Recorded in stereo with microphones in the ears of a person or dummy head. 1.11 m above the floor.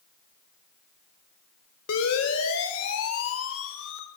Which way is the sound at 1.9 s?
75° left (ahead or behind).